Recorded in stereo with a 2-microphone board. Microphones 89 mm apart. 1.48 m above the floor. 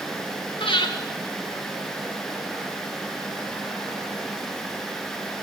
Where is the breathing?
70° left (ahead or behind), 2 m.